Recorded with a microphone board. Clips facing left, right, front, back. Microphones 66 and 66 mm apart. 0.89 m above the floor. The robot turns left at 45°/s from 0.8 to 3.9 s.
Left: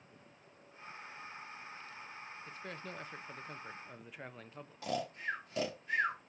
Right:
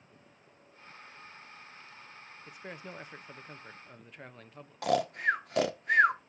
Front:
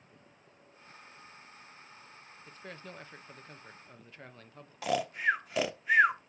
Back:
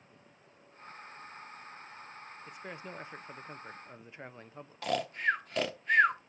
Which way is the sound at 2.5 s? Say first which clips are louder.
Right 3 dB, back 1 dB; 125° right.